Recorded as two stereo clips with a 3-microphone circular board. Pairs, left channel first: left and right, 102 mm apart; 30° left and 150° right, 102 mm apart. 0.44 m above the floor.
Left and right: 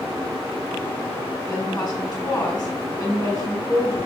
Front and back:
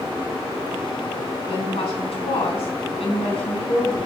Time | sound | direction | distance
1.5 | a woman speaking | 35° left | 3.5 m